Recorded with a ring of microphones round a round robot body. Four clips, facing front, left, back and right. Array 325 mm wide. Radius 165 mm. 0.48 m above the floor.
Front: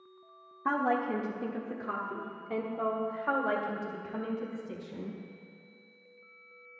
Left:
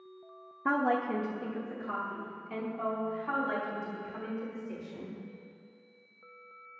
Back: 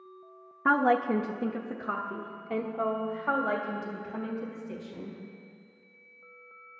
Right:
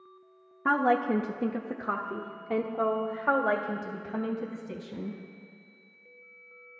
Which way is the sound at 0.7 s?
160° right.